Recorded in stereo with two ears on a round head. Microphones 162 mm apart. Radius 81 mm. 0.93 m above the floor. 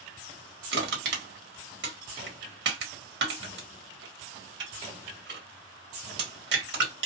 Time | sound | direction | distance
0.7 | crushing | 65° right (ahead or behind) | 1.2 m